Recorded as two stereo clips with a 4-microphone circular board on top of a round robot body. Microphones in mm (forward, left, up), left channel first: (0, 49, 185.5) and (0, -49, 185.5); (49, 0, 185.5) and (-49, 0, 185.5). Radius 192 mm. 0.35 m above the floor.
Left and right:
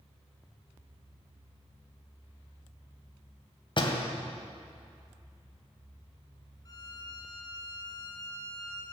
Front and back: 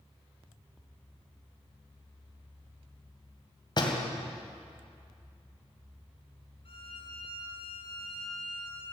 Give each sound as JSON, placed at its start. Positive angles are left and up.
{"t": 3.8, "sound": "a door slam", "azimuth_deg": 50, "distance_m": 2.0}
{"t": 6.7, "sound": "a violin", "azimuth_deg": 35, "distance_m": 1.6}